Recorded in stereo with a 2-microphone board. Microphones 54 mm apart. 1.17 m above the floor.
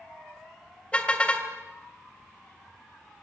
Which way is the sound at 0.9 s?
20° left (ahead or behind).